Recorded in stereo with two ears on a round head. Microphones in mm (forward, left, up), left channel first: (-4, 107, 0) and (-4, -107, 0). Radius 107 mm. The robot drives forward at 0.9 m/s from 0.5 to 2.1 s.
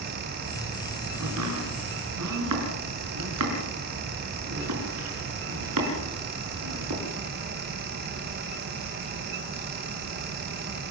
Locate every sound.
1.2 s chopping: 75° right (ahead or behind), 6.5 m; by 7.0 s 80° right, 6 m